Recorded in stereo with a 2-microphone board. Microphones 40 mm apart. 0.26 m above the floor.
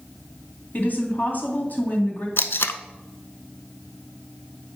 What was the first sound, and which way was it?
A woman speaking, 50° left (ahead or behind).